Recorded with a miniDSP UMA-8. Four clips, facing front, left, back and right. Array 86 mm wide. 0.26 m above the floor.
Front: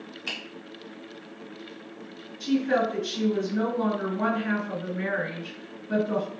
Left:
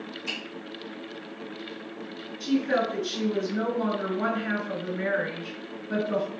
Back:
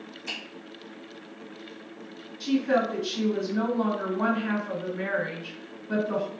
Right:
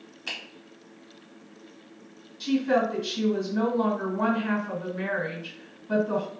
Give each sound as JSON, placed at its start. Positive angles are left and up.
{"t": 0.3, "sound": "a finger snap", "azimuth_deg": -35, "distance_m": 1.6}
{"t": 2.4, "sound": "a woman speaking", "azimuth_deg": -110, "distance_m": 1.9}